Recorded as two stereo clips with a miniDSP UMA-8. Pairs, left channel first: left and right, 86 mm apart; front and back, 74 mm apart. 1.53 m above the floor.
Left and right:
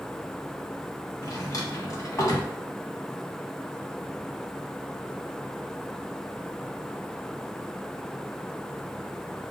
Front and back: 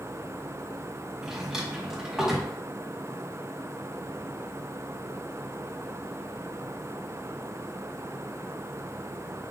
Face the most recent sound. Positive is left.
turn(degrees=100)